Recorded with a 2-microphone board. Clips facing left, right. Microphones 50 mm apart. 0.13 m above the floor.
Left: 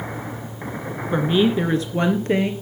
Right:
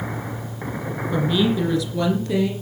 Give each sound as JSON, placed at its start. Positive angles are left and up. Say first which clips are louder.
{"t": 1.1, "sound": "a woman speaking", "louder": "left 2 dB", "side_deg": 30, "distance_m": 2.0}